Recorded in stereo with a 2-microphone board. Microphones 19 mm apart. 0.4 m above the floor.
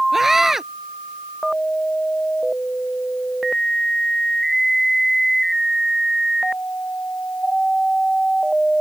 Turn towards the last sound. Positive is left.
turn(degrees=-25)  # may be behind; listen again after turning